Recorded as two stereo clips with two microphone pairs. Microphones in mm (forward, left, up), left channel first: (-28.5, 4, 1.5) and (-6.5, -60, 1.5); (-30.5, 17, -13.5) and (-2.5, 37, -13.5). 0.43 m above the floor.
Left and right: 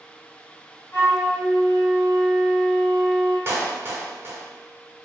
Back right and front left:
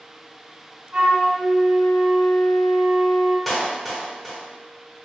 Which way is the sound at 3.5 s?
55° right.